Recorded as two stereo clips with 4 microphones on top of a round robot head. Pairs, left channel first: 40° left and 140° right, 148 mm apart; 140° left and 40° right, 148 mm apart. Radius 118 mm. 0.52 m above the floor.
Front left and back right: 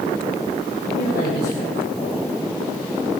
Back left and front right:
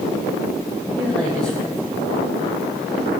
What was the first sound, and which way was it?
A man speaking, 60° left.